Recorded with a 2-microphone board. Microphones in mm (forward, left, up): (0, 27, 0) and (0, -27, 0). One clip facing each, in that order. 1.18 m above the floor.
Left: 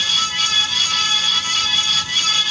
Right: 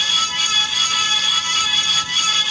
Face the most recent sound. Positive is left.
No sound to turn to.